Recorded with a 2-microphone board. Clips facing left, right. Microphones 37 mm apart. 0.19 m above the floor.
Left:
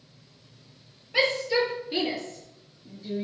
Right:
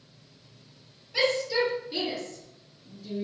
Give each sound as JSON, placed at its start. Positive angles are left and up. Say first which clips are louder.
{"t": 1.1, "sound": "a shout", "louder": "left 2 dB", "side_deg": 30, "distance_m": 4.5}